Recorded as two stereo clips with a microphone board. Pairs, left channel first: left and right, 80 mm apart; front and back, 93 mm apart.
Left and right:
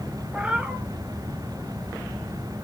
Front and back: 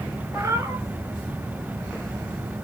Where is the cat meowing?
160° right, 0.8 m.